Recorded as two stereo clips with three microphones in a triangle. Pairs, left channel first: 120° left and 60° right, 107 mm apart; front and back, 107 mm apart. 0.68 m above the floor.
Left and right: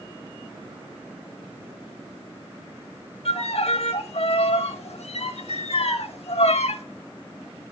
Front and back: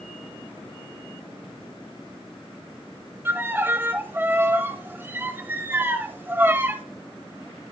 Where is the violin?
110° left, 1.0 m.